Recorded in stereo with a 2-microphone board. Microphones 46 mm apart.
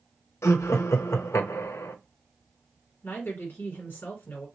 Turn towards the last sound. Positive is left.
turn(degrees=45)  # may be behind; listen again after turning